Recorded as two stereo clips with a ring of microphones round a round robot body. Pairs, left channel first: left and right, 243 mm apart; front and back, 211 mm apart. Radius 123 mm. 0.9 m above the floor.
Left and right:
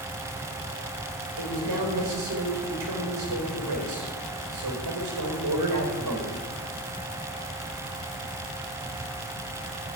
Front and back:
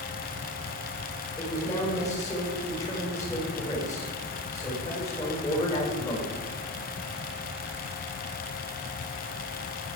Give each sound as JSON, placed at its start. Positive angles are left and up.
{"t": 1.4, "sound": "a man speaking", "azimuth_deg": -80, "distance_m": 4.5}